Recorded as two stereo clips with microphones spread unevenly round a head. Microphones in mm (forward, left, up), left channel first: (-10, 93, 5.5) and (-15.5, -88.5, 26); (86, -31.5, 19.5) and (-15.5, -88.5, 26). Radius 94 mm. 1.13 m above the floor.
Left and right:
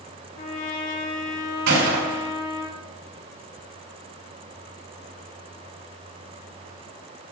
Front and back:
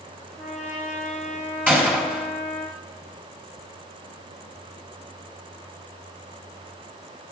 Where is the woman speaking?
No woman speaking in this recording.